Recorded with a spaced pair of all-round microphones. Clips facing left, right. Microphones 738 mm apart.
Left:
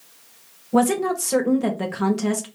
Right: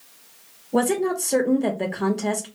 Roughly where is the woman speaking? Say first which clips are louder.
Left 2 dB; left.